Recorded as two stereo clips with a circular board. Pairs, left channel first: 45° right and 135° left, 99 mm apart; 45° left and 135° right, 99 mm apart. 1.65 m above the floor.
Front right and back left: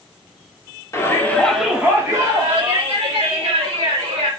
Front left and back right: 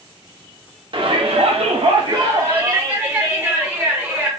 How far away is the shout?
About 0.7 m.